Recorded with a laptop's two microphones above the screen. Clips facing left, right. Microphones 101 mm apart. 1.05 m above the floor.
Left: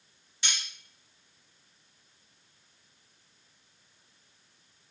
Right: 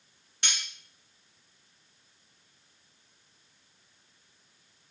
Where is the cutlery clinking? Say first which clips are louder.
Even; 60° right (ahead or behind), 1.4 m.